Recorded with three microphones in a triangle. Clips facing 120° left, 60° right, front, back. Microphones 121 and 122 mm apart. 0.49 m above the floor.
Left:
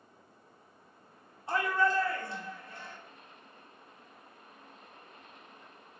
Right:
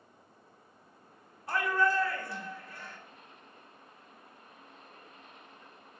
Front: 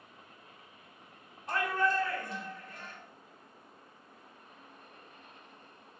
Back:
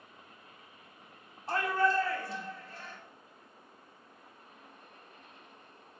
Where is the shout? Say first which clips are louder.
Even, back 2 dB; 165° left, 1.2 m.